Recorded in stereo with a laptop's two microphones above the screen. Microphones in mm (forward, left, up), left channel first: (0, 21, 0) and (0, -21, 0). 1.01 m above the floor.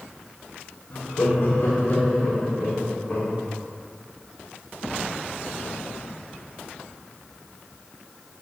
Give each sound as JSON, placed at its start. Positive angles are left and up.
{"t": 0.9, "sound": "laughter", "side_deg": 60, "distance_m": 1.6}